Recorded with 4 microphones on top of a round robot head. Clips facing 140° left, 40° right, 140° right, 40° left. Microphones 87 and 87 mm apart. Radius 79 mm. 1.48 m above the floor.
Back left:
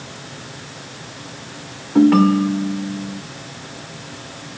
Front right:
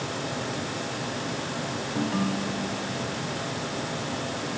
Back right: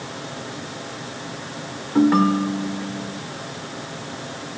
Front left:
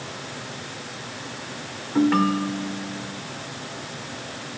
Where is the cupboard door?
I don't hear a cupboard door.